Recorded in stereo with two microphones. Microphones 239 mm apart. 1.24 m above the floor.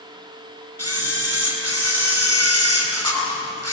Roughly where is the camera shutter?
Right.